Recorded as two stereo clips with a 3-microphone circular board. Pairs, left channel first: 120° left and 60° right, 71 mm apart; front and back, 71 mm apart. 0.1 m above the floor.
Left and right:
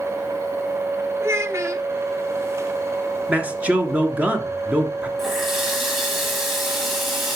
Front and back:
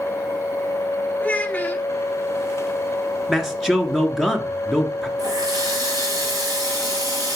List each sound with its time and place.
1.2 s a child speaking: 55° right, 1.3 m
3.3 s a man speaking: 100° right, 1.4 m
5.2 s a running tap: 150° right, 6 m